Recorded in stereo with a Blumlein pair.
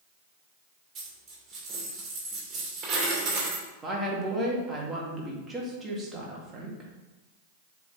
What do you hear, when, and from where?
0.9 s a dropped coin: 25° right, 2.5 m
3.8 s a woman speaking: 15° right, 2 m